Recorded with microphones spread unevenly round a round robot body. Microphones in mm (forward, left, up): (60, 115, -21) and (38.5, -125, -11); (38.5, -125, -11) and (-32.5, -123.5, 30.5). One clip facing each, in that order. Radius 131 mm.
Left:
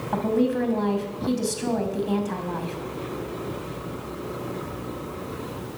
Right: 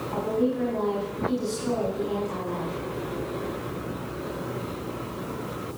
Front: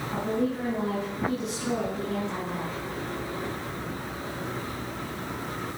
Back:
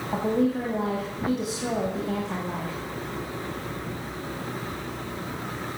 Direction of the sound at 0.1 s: 115° left.